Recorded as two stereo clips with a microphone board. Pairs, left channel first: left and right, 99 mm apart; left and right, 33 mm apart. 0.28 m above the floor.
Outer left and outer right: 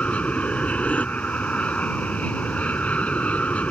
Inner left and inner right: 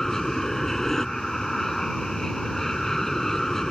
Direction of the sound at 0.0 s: 10° left (ahead or behind).